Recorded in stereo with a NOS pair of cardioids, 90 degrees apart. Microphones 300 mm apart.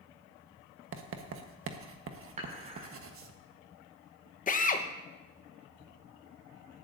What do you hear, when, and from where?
0.9 s writing: 45° right, 1.3 m
2.4 s dishes clattering: 25° right, 5.5 m
4.5 s a drill: 25° left, 1.1 m